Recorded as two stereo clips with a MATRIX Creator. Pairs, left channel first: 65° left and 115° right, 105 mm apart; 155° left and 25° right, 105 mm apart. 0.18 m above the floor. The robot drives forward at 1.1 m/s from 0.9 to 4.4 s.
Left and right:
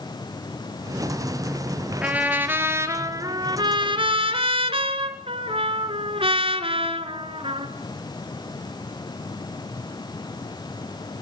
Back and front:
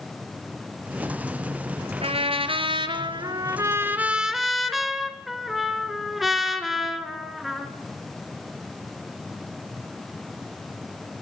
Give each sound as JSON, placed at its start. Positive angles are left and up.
{"t": 2.0, "sound": "a trumpet", "azimuth_deg": -35, "distance_m": 2.5}